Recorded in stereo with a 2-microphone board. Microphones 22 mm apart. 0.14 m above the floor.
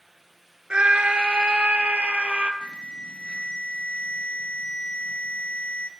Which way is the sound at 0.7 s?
50° right (ahead or behind).